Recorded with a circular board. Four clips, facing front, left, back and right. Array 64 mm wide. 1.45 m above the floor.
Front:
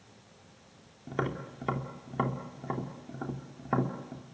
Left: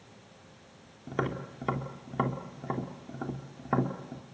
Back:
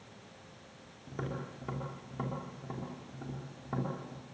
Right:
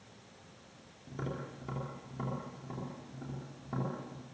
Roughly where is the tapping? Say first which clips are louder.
Left 8 dB, front 6 dB; ahead left.